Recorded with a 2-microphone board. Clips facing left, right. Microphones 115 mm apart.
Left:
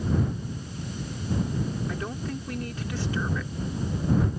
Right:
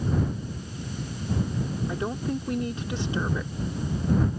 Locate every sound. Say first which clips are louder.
1.9 s a woman speaking: right 4 dB; 25° right (ahead or behind)